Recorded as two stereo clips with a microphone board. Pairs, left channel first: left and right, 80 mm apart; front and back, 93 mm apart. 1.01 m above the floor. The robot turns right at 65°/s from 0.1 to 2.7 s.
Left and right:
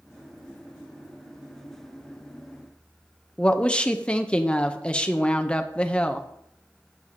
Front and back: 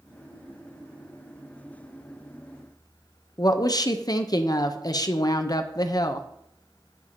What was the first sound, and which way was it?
A woman speaking, 20° left.